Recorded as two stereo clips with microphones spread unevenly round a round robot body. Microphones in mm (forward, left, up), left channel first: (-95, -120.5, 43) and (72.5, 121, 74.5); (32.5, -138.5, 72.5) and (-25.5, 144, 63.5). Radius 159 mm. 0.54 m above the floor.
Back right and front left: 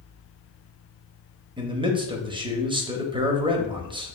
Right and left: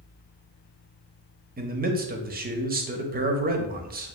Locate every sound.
1.6 s a man speaking: 125° left, 0.7 m